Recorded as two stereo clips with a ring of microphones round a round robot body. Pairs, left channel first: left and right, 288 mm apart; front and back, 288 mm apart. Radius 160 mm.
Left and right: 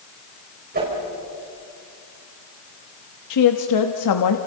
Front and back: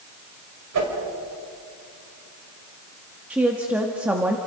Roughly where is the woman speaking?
Left.